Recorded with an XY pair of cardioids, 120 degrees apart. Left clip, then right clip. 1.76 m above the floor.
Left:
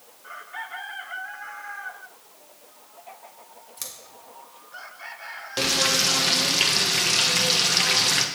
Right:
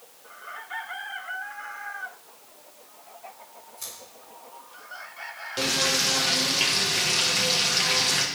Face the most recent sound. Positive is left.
turn(degrees=30)